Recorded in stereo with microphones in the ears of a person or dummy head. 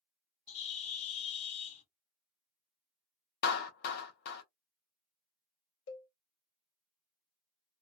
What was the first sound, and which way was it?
A bird, 35° left (ahead or behind).